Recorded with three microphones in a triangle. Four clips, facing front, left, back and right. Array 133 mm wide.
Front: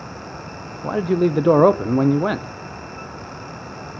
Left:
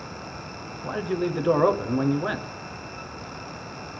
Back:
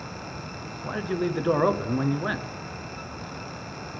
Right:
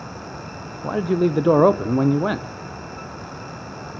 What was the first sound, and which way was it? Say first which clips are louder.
A man speaking: right 7 dB, front 9 dB; 30° right.